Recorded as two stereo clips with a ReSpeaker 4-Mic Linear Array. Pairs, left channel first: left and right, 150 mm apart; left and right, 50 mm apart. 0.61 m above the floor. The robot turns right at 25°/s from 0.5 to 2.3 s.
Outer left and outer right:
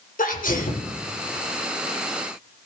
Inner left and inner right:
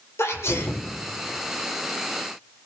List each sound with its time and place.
0.2 s a sneeze: 65° left (ahead or behind), 2.5 m